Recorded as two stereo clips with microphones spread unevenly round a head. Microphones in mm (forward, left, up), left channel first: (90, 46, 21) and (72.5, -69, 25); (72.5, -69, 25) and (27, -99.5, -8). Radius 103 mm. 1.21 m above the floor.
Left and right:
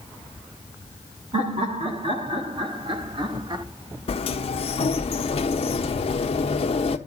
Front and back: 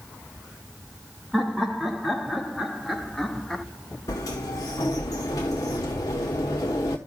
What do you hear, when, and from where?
1.3 s laughter: 60° right, 2.5 m; by 3.6 s 45° right, 1.2 m
4.1 s a sliding door: 95° left, 1.0 m